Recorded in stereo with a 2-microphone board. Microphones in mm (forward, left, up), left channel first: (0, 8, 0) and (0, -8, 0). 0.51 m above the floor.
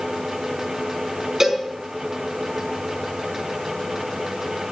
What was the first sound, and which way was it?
A cowbell, 30° right (ahead or behind).